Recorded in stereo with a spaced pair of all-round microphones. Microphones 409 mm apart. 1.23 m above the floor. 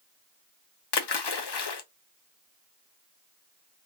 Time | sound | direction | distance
0.9 | a splash | 75° left (ahead or behind) | 0.5 m